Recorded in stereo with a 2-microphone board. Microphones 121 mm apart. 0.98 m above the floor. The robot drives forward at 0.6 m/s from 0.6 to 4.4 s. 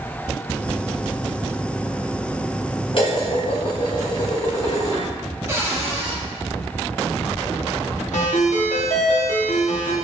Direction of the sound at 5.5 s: 25° right (ahead or behind).